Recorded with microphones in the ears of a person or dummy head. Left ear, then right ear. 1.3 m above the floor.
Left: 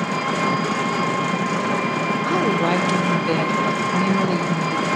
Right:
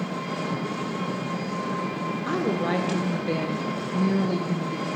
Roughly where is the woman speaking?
Centre.